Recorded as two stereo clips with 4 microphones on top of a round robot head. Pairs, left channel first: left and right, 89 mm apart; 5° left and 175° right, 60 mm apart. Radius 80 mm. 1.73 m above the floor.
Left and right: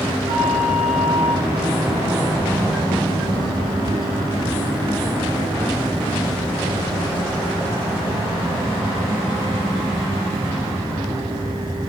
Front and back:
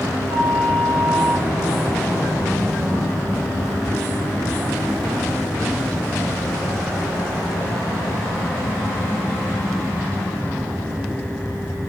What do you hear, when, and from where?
0.3 s a flute: 85° right, 3.5 m